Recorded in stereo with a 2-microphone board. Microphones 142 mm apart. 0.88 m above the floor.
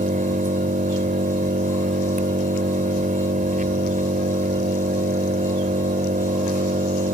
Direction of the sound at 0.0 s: 75° right (ahead or behind).